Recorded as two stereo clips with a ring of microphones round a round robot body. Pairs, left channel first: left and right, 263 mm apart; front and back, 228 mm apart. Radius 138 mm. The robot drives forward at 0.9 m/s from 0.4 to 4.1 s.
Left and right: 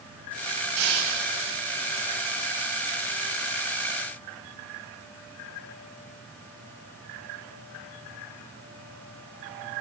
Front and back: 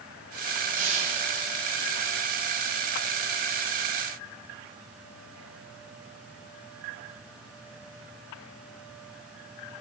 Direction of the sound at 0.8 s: 120° right.